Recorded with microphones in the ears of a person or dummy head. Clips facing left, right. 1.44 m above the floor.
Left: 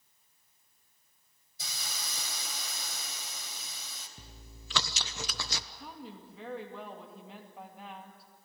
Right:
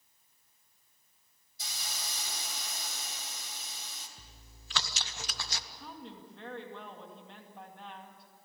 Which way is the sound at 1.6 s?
70° left (ahead or behind).